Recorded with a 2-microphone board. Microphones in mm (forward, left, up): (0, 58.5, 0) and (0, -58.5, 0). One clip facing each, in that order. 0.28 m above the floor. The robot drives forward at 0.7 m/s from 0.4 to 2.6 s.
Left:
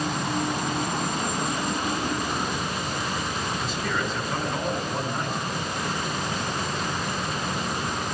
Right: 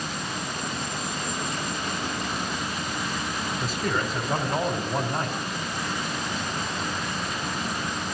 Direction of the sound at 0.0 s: 65° left (ahead or behind).